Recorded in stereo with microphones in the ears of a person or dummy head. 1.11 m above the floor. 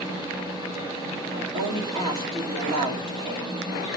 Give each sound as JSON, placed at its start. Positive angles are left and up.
{"t": 0.0, "sound": "a machine running", "side_deg": -25, "distance_m": 2.5}
{"t": 1.3, "sound": "a woman speaking", "side_deg": -25, "distance_m": 2.0}